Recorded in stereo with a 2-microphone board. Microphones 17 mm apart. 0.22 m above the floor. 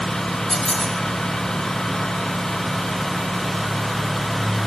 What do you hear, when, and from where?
0.5 s a squeak: 20° left (ahead or behind), 1.9 m